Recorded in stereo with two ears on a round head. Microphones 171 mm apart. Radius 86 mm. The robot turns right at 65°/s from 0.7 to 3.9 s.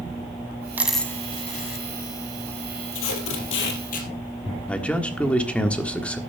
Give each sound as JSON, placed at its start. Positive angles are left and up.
{"t": 0.8, "sound": "a dropped coin", "side_deg": -10, "distance_m": 1.4}
{"t": 2.9, "sound": "tape being pulled", "azimuth_deg": 70, "distance_m": 3.5}
{"t": 4.7, "sound": "a man speaking", "side_deg": 5, "distance_m": 1.4}